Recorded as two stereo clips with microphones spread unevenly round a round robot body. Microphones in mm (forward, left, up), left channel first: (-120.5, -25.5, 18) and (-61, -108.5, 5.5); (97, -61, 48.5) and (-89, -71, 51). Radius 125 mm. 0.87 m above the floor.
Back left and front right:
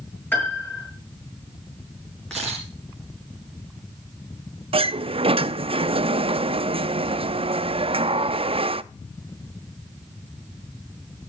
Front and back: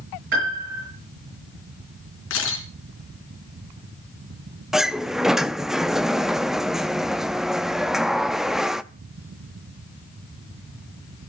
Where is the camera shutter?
40° left, 2.5 m.